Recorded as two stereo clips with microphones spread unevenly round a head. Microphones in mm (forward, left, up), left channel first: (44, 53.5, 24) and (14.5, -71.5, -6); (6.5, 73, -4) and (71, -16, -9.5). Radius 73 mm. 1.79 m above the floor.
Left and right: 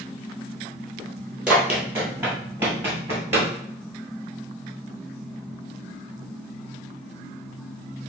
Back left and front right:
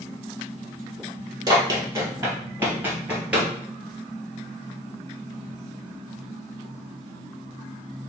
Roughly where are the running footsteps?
Ahead.